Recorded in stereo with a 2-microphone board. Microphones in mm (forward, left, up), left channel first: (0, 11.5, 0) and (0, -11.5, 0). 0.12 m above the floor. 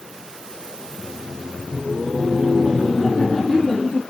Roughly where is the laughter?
Centre.